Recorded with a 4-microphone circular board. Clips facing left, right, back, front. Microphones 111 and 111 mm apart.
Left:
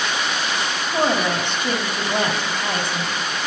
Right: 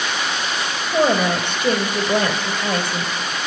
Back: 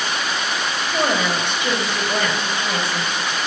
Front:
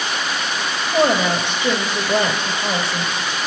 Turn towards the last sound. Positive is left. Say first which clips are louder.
# right 3 dB, front 5 dB
turn(degrees=-70)